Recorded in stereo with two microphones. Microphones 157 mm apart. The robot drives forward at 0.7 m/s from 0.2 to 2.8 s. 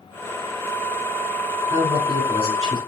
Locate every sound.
1.7 s a man speaking: 40° right (ahead or behind), 1.8 m; by 2.8 s 50° right (ahead or behind), 1.6 m